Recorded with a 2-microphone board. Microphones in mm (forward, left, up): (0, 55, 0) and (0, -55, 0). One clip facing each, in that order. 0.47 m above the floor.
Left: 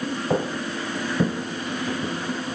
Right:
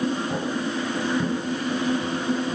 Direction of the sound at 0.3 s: 55° left (ahead or behind).